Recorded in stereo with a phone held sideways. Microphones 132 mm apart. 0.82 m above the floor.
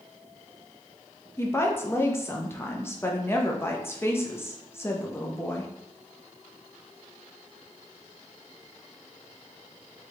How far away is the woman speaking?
About 0.7 m.